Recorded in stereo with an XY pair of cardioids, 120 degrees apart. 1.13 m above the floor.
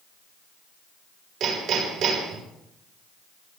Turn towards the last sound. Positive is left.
turn(degrees=-70)